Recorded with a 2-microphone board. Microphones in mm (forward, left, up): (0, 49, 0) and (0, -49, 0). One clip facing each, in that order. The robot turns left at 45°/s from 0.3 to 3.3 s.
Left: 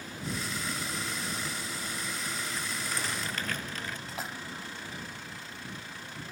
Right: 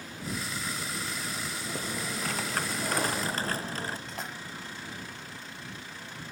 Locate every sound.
1.6 s typing on a keyboard: 70° right; by 4.0 s 145° right
4.1 s a splash: centre (ahead or behind)